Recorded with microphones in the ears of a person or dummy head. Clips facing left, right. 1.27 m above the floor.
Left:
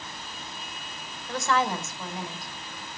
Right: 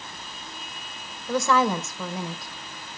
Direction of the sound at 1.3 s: 70° right (ahead or behind).